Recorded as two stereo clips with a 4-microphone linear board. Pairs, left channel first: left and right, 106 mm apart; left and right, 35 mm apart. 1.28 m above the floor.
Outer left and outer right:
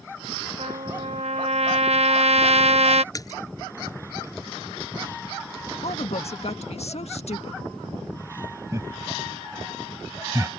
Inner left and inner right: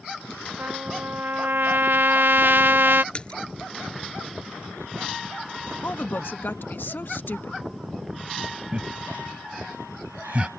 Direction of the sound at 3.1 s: 35° left (ahead or behind).